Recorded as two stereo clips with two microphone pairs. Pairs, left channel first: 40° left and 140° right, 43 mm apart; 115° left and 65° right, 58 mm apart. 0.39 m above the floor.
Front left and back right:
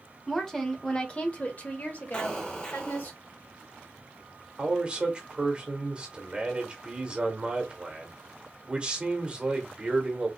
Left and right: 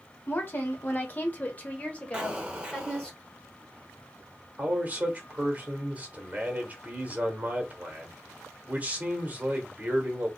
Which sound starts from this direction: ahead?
An explosion, at 2.1 s.